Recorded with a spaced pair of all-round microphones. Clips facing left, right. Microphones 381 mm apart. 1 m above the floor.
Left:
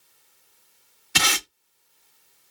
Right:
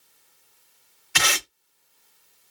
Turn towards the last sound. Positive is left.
turn(degrees=50)  # may be behind; listen again after turning